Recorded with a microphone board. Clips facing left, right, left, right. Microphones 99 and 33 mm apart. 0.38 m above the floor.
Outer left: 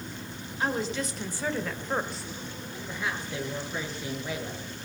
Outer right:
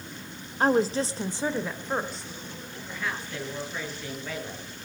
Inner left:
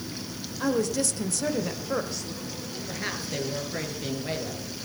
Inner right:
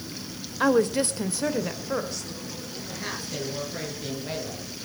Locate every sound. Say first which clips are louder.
0.6 s a woman speaking: outer right 7 dB, inner right 5 dB; 40° right (ahead or behind), 1.6 m; by 2.8 s 15° left (ahead or behind), 2.5 m
2.9 s a woman speaking: even, inner left 2 dB; 20° left (ahead or behind), 7 m